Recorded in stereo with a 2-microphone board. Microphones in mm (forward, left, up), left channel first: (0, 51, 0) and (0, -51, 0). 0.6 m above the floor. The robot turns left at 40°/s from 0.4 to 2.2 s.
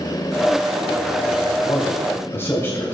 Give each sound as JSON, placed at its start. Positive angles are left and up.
{"t": 1.6, "sound": "a man speaking", "side_deg": 45, "distance_m": 3.0}